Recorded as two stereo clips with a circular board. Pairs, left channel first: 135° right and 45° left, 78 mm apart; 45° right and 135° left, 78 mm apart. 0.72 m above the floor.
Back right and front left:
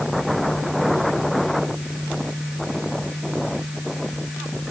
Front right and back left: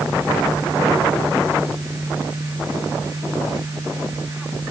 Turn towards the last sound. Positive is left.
No sound to turn to.